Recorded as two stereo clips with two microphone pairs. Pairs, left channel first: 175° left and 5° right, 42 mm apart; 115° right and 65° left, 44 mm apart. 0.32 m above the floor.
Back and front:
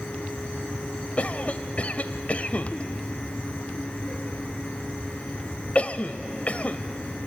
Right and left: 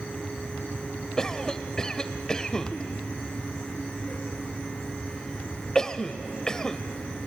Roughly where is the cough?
Behind.